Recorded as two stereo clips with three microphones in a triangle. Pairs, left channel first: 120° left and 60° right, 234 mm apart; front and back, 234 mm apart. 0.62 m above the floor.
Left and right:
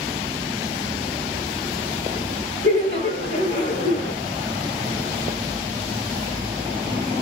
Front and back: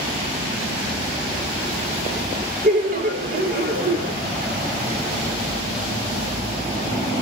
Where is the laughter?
140° left, 1.7 m.